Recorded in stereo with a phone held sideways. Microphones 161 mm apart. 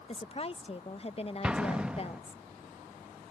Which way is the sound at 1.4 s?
5° right (ahead or behind).